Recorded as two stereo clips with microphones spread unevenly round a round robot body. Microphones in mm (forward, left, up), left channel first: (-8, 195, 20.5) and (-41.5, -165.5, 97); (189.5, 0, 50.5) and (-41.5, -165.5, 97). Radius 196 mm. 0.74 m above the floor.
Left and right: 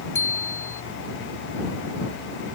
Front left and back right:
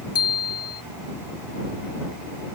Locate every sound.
0.1 s a bicycle bell: straight ahead